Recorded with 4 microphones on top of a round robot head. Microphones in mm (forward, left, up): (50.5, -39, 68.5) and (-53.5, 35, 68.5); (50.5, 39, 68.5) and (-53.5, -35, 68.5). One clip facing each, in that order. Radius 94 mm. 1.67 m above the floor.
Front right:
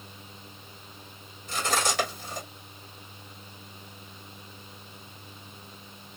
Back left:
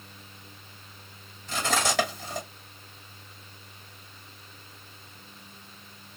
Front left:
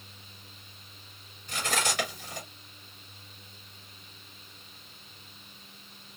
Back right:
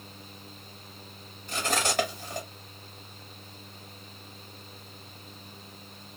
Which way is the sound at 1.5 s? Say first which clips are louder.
Back left 1 dB, back right 2 dB; 165° left.